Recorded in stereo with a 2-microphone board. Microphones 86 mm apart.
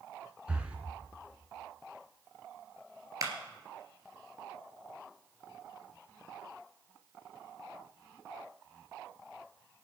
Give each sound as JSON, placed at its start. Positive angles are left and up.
{"t": 0.5, "sound": "breathing", "side_deg": -15, "distance_m": 1.6}
{"t": 3.2, "sound": "a clap", "side_deg": -45, "distance_m": 2.0}